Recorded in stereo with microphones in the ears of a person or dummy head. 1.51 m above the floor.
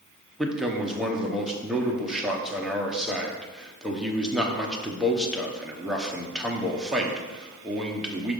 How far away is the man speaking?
About 0.9 m.